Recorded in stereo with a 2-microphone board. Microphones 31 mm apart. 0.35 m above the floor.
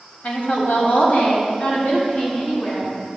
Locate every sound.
0.2 s a woman speaking: 55° left (ahead or behind), 1.4 m; by 2.9 s 50° left (ahead or behind), 2.5 m